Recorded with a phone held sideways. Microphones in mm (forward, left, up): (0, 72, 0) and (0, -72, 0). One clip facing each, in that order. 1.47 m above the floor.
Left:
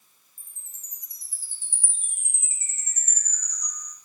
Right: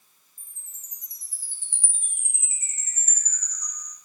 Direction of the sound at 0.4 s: 35° left (ahead or behind).